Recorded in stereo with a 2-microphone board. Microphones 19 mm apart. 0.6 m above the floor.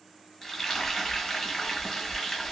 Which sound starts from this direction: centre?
Frying, at 0.4 s.